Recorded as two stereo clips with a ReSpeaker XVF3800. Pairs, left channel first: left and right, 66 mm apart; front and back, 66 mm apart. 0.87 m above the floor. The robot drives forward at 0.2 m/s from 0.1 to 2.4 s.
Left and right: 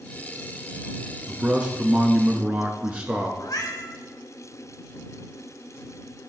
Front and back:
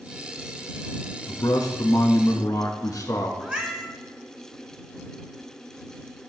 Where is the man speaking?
20° right, 1.1 m; by 3.3 s 25° right, 0.9 m.